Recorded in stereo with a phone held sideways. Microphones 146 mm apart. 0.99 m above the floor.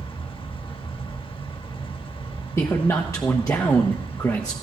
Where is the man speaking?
20° left (ahead or behind), 1.0 m.